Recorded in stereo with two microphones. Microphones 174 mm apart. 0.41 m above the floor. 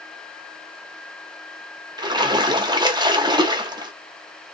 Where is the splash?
25° right (ahead or behind), 0.7 m.